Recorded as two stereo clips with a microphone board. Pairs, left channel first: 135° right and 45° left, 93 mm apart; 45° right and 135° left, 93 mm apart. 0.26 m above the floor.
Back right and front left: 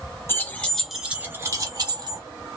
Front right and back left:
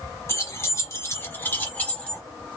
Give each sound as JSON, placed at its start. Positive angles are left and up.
{"t": 0.3, "sound": "keys jangling", "azimuth_deg": -85, "distance_m": 0.7}